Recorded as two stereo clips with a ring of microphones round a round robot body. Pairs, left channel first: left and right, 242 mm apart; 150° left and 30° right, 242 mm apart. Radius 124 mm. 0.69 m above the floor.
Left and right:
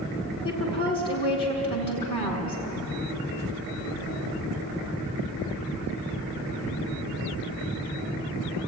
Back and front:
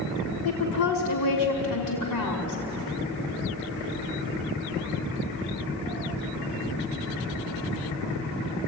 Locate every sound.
0.5 s a woman speaking: 160° left, 5 m